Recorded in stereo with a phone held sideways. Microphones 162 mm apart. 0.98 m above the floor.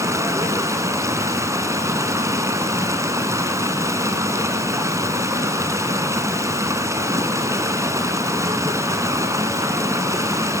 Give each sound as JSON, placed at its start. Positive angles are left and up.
{"t": 0.0, "sound": "running water", "side_deg": -20, "distance_m": 1.8}